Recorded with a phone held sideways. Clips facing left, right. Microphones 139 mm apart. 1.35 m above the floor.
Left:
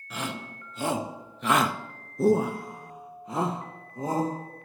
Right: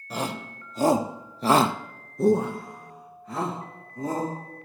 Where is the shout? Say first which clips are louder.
Right 4 dB; 35° right (ahead or behind), 1.5 m; by 4.3 s 25° left (ahead or behind), 2.5 m.